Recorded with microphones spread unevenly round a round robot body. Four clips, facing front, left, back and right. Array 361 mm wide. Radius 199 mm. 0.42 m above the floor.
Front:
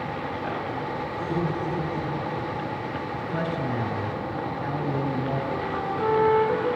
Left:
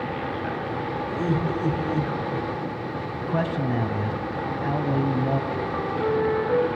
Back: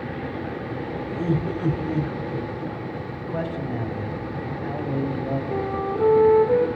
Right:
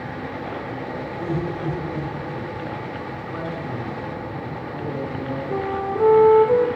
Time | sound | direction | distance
1.1 | laughter | 155° left | 6.5 m
3.2 | a man speaking | 90° left | 3.5 m
5.5 | a flute | 95° right | 3 m